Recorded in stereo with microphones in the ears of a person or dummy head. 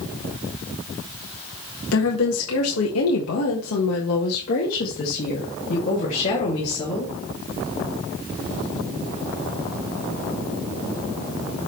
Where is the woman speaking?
65° left (ahead or behind), 1.5 m; by 7.1 s 35° left (ahead or behind), 3 m.